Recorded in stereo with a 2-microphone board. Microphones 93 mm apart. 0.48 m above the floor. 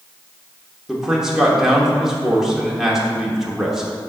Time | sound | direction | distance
0.9 | a man speaking | 5° right (ahead or behind) | 1.1 m